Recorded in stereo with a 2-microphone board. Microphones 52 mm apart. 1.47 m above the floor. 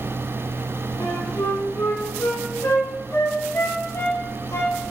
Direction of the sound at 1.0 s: 65° left (ahead or behind).